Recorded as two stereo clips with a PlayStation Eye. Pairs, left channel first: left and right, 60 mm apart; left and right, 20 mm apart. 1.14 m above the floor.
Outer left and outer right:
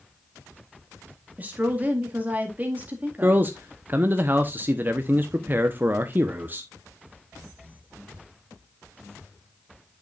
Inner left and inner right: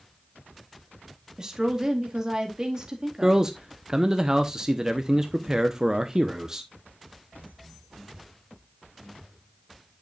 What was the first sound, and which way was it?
A woman speaking, 30° right (ahead or behind).